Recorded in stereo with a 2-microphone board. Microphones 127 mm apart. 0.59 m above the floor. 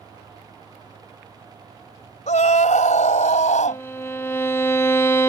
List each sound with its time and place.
2.3 s a scream: 75° left (ahead or behind)
3.7 s a violin: 20° left (ahead or behind)